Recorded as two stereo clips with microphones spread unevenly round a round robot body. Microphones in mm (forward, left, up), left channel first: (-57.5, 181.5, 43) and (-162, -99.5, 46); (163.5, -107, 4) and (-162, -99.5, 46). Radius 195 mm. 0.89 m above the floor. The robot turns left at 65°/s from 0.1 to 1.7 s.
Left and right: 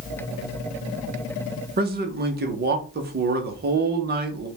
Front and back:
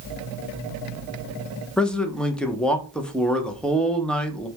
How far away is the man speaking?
About 0.7 m.